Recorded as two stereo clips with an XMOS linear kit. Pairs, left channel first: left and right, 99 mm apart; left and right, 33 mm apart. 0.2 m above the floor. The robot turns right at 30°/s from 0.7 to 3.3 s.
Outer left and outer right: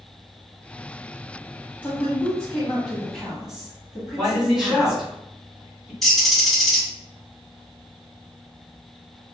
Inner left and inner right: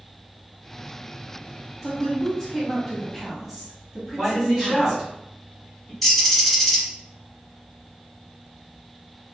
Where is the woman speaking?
145° left, 1.2 m; by 5.0 s 170° right, 1.2 m.